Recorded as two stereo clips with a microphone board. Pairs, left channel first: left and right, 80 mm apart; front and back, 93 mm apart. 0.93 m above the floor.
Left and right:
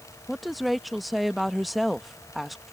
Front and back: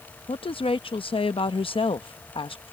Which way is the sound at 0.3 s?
Straight ahead.